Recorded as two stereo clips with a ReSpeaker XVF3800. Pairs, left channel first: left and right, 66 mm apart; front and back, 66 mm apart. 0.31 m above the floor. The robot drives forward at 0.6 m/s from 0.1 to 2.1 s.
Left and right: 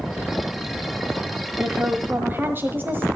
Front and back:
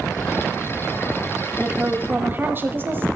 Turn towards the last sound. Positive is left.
turn(degrees=-135)